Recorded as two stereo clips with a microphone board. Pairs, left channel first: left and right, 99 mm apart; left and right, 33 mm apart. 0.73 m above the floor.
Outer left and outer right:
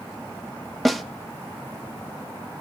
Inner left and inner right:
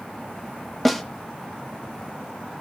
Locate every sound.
0.8 s a snare drum: centre (ahead or behind), 0.5 m